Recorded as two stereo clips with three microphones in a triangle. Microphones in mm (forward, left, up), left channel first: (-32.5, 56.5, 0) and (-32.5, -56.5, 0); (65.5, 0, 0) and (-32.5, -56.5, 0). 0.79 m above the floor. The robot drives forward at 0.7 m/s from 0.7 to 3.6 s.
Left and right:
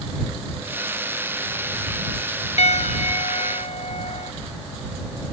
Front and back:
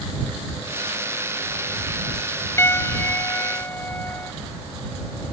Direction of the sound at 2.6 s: 100° left.